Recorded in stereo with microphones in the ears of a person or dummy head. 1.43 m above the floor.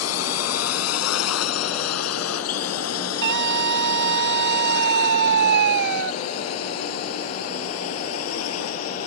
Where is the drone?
85° left; by 9.1 s 80° left.